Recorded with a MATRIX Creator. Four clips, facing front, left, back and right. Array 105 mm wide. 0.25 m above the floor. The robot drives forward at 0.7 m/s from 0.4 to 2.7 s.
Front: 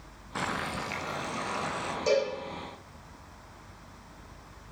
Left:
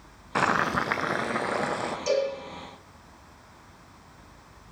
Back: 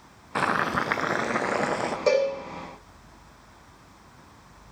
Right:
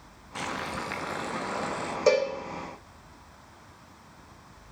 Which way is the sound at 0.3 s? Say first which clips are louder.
Left 9 dB, back 8 dB; 120° left.